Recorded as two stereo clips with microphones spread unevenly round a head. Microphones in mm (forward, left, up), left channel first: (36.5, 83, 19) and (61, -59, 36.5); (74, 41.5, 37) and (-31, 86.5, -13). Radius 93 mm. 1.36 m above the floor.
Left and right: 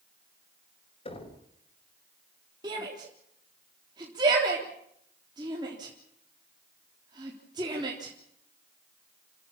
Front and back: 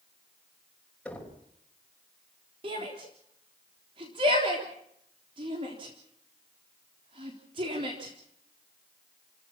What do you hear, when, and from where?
1.1 s knocking: 55° left, 6 m
2.6 s a shout: 145° right, 3.5 m